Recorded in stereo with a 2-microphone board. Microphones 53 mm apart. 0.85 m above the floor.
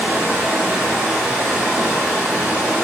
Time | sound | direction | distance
0.0 | running water | 25° right (ahead or behind) | 1.3 m